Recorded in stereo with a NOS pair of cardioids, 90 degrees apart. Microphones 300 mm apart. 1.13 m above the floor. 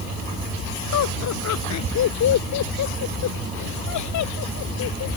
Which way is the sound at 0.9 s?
65° left.